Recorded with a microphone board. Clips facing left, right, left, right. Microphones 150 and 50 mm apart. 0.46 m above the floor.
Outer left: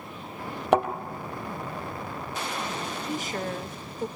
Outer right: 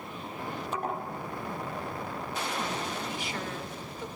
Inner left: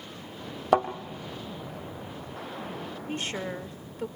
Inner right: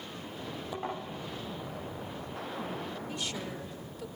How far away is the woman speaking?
About 1.1 m.